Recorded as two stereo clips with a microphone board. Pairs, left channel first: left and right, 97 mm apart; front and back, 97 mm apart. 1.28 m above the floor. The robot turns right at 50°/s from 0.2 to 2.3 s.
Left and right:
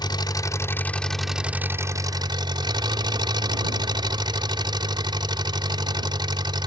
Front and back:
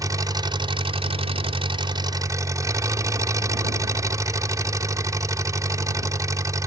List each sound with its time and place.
0.0 s an engine running: 130° left; by 6.7 s 125° right